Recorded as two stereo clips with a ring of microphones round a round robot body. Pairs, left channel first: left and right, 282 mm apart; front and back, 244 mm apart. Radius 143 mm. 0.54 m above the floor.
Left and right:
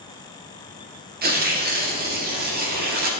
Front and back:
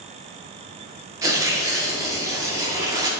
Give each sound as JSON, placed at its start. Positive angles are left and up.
{"t": 1.2, "sound": "tearing paper", "azimuth_deg": -115, "distance_m": 1.3}